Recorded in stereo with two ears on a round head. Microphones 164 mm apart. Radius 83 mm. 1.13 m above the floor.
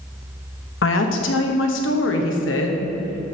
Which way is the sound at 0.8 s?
80° left.